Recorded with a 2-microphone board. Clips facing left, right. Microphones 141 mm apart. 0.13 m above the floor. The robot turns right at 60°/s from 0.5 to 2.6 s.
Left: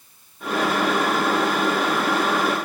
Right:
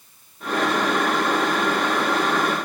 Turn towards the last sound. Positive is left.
No sound to turn to.